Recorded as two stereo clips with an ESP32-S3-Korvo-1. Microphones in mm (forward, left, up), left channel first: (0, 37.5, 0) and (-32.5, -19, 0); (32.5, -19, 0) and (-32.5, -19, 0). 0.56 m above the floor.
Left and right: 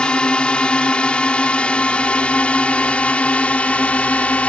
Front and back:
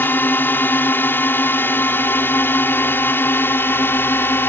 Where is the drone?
Straight ahead; by 4.5 s 5° left.